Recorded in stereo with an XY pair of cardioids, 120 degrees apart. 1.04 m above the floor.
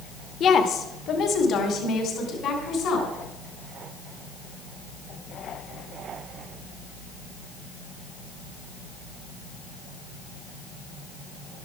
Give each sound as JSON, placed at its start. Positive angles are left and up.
{"t": 0.4, "sound": "a woman speaking", "azimuth_deg": 55, "distance_m": 1.4}